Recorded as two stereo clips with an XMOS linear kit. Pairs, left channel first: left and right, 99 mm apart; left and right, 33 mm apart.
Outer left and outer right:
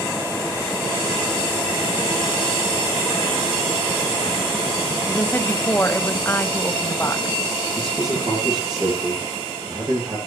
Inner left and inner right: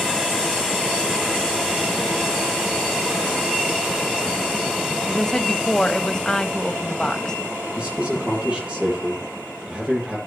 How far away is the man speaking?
About 10 m.